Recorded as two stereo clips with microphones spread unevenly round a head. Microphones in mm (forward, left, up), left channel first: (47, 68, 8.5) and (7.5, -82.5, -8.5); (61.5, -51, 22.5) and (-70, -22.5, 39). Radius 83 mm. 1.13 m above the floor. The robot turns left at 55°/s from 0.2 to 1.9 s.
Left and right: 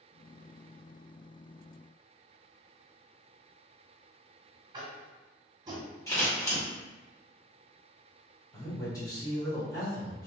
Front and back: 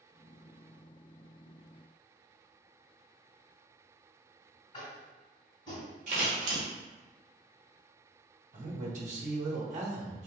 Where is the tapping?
50° right, 1.1 m.